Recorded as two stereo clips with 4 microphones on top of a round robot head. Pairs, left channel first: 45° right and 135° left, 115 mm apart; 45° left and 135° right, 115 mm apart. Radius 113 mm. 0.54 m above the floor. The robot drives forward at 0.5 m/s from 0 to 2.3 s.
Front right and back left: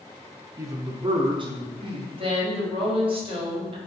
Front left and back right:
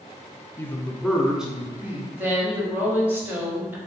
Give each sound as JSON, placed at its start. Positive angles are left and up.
{"t": 0.6, "sound": "a man speaking", "azimuth_deg": 100, "distance_m": 0.7}
{"t": 2.1, "sound": "a woman speaking", "azimuth_deg": 155, "distance_m": 1.3}